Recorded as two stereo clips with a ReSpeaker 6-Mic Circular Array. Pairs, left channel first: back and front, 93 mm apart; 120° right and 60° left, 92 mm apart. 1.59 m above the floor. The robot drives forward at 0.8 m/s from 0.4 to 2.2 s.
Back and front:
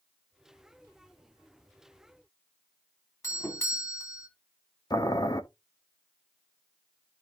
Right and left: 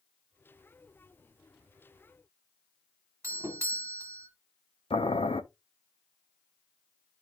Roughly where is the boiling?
Behind right.